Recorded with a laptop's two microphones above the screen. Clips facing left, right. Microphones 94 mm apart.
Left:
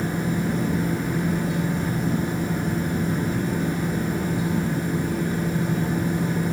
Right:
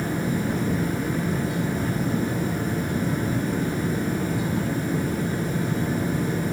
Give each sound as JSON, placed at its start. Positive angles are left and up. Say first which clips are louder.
{"t": 0.0, "sound": "a fan", "louder": "left 1 dB", "side_deg": 25, "distance_m": 2.5}